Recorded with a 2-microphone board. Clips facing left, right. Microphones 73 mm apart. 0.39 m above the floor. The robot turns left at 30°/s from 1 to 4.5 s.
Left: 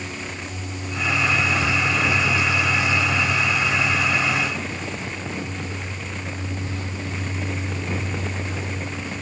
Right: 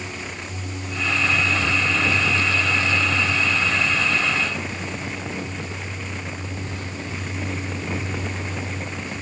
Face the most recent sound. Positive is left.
No sound to turn to.